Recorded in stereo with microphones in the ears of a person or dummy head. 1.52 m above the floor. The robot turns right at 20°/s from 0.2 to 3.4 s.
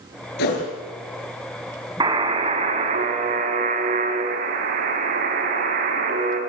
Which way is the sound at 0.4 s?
60° left (ahead or behind).